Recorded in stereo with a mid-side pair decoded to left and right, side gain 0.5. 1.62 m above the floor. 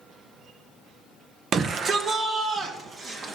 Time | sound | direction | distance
1.5 | a shout | 50° right | 1.2 m